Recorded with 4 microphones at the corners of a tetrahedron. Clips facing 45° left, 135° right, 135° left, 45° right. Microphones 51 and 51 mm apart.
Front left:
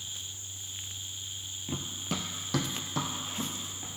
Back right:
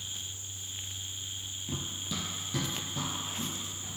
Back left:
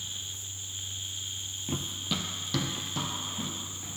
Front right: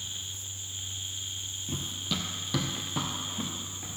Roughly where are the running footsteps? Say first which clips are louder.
Front left 3 dB, back left 1 dB; left.